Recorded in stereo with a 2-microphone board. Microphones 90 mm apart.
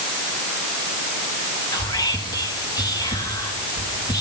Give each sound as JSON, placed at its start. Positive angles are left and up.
{"t": 1.7, "sound": "whispering", "side_deg": 45, "distance_m": 1.6}